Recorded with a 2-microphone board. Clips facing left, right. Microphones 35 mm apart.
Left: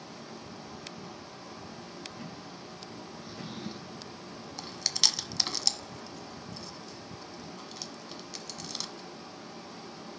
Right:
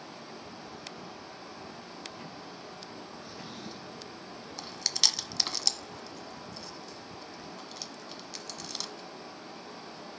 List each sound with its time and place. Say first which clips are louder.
0.0 s running water: even; 15° right (ahead or behind), 4.5 m
3.2 s a drawer: left 2 dB; 10° left (ahead or behind), 1.3 m
4.6 s chewing: even; centre (ahead or behind), 1.3 m